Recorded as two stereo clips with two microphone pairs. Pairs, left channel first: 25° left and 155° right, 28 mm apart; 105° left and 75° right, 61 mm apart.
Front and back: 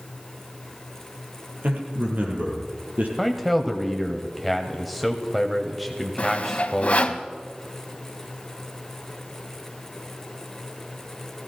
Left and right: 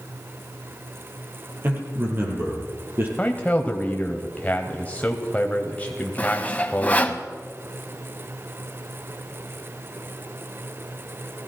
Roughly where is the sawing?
Ahead left.